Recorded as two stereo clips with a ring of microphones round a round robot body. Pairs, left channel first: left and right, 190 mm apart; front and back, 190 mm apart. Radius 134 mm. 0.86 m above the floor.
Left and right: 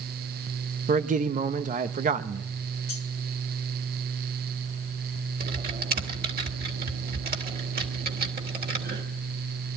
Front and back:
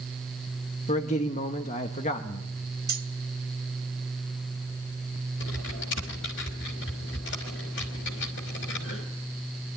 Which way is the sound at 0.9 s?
50° right.